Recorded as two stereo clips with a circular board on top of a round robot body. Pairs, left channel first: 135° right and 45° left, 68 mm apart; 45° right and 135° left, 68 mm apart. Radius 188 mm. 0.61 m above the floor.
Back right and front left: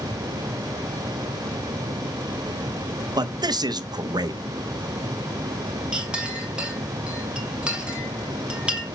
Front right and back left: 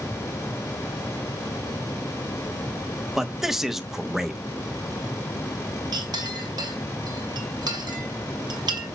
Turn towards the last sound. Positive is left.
turn(degrees=120)